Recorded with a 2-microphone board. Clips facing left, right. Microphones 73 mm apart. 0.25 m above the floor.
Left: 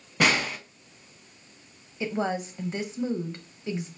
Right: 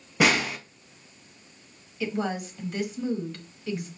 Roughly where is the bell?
I don't hear a bell.